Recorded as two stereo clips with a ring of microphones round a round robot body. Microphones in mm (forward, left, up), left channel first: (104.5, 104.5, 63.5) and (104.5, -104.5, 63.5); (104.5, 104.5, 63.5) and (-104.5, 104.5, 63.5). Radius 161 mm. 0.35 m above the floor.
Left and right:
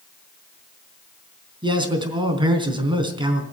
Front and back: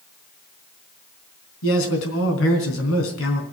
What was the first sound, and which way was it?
A man speaking, 25° right.